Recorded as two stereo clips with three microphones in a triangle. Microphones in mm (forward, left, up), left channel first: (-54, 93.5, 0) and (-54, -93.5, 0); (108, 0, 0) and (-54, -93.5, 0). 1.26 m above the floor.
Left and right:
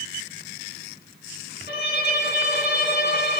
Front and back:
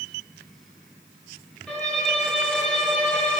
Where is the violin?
115° left, 4.5 m.